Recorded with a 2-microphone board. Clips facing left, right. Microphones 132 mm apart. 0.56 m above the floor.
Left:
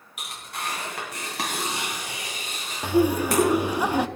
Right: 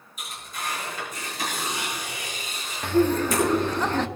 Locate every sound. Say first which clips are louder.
0.2 s tearing paper: left 1 dB; 75° left (ahead or behind), 4 m
2.8 s laughter: even; 10° left (ahead or behind), 0.7 m